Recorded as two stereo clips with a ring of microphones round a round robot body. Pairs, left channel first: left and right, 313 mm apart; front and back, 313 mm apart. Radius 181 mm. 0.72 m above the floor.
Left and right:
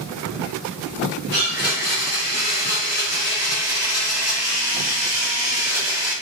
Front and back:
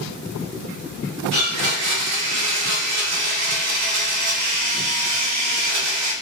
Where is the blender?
170° right, 0.5 m.